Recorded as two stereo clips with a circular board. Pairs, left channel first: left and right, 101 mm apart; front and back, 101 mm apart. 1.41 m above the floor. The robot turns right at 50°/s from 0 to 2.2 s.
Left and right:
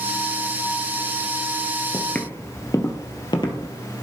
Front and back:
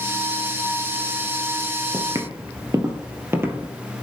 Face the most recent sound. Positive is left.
turn(degrees=115)